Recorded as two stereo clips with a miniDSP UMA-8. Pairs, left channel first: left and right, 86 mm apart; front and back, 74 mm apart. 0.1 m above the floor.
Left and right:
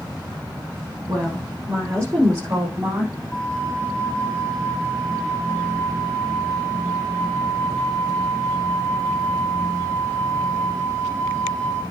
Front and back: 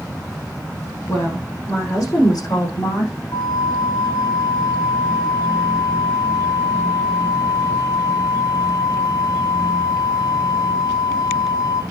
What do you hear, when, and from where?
1.1 s a woman speaking: 45° right, 6.5 m; by 3.1 s 20° right, 6 m
3.3 s a flute: 10° left, 1.7 m